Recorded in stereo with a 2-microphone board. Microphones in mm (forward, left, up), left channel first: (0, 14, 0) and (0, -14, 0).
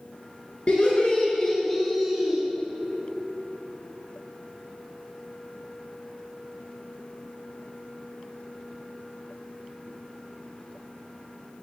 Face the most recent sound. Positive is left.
turn(degrees=-20)  # may be behind; listen again after turning